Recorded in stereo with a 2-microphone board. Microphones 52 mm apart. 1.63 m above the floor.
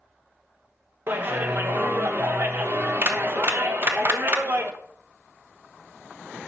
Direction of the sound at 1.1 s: 50° right (ahead or behind).